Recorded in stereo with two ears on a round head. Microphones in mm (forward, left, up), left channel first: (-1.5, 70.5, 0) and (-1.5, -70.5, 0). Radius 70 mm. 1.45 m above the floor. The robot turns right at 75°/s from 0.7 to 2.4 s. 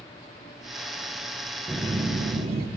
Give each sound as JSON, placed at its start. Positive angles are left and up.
{"t": 1.7, "sound": "a phone buzzing", "azimuth_deg": -160, "distance_m": 1.1}